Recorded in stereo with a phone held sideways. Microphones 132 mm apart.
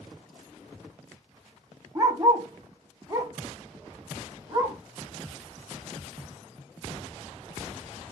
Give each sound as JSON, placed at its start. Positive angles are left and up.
{"t": 1.9, "sound": "a dog barking", "side_deg": -20, "distance_m": 1.0}